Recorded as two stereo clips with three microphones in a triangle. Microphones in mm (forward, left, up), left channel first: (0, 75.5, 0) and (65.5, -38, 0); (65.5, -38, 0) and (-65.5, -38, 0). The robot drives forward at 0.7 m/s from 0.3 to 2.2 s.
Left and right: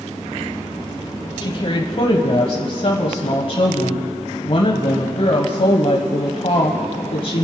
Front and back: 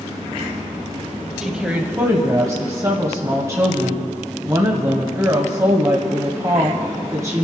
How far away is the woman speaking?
About 1.3 m.